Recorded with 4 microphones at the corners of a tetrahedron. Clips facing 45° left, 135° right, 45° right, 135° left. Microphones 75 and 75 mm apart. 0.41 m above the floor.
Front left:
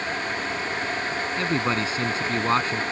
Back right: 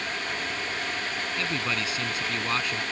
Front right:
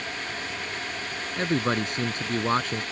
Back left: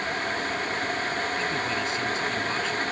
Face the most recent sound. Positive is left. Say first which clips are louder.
# front left 6 dB, front right 2 dB
turn(degrees=-10)